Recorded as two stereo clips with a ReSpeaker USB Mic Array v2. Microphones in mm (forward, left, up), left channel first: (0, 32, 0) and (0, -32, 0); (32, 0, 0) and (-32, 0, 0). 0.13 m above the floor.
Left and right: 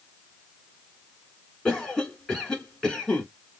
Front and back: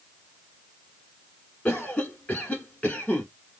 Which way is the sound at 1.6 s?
25° left.